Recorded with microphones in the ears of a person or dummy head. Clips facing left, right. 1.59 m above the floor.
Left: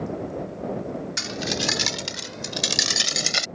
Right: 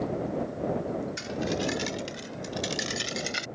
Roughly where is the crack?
I don't hear a crack.